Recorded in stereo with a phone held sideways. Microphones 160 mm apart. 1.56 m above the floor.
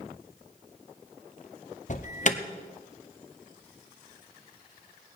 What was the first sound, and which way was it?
An alarm, 50° left (ahead or behind).